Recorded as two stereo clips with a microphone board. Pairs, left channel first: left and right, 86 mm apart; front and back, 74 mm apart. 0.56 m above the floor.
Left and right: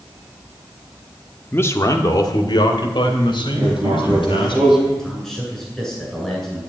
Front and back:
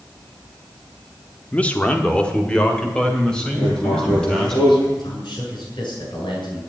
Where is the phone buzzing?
I don't hear a phone buzzing.